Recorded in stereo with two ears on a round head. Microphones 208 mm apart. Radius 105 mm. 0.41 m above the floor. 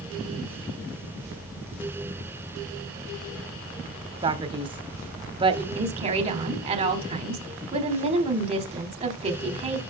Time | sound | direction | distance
4.2 | a man speaking | 20° right (ahead or behind) | 0.9 m
5.8 | a woman speaking | 25° right (ahead or behind) | 1.1 m